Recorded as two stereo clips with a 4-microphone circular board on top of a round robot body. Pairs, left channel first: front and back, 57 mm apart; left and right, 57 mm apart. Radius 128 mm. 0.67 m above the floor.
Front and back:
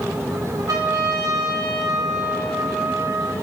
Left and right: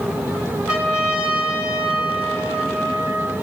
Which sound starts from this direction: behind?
A trumpet, at 0.7 s.